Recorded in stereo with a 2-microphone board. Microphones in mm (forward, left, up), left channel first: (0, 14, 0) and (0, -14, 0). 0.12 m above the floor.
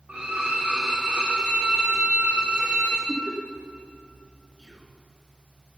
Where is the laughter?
45° left (ahead or behind), 3 m.